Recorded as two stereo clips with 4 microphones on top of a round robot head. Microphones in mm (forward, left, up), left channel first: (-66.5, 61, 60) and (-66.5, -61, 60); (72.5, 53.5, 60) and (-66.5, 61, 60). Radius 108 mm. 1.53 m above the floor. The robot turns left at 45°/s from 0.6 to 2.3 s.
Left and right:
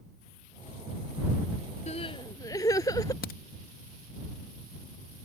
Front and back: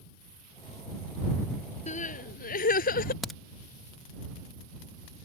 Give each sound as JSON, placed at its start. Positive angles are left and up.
{"t": 1.9, "sound": "crying", "azimuth_deg": 40}
{"t": 3.2, "sound": "a crack", "azimuth_deg": 85}